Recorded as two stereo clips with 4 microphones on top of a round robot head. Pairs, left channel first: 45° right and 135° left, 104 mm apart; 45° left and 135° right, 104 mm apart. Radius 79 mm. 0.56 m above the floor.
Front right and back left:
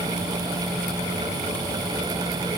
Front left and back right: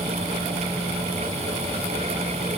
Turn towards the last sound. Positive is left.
No sound to turn to.